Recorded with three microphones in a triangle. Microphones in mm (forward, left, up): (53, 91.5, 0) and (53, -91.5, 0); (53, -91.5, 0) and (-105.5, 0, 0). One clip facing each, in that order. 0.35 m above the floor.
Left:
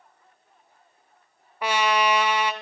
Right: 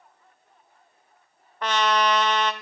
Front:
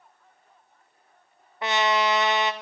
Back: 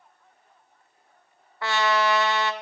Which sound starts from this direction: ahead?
A trumpet, at 1.6 s.